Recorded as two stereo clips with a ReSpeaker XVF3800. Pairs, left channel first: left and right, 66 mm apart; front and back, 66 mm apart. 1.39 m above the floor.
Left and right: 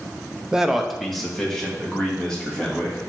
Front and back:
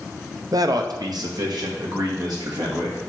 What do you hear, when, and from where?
0.5 s a man speaking: 165° right, 0.6 m; by 3.0 s 170° left, 3 m